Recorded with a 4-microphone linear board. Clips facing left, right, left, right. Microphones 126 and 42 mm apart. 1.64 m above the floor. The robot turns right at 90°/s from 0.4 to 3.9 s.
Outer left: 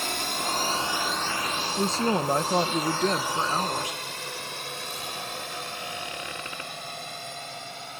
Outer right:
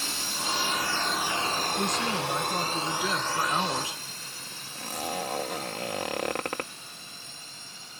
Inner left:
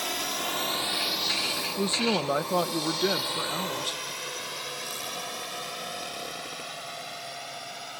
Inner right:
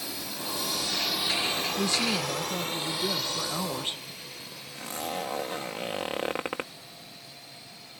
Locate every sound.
0.0 s a drone: 60° left (ahead or behind); by 8.0 s 65° left (ahead or behind)
1.8 s a woman speaking: 15° left; by 4.0 s 150° right
4.8 s a zipper: 75° right (ahead or behind)